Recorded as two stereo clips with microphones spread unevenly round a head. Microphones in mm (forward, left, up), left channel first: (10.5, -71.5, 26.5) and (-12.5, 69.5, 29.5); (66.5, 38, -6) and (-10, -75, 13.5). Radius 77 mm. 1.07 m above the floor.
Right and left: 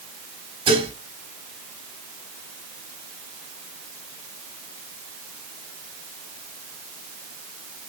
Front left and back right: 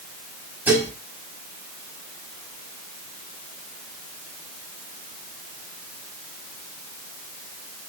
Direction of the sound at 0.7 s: 155° left.